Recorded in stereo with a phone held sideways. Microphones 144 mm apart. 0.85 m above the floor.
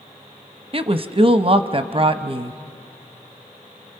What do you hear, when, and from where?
0.7 s a woman speaking: 40° right (ahead or behind), 0.8 m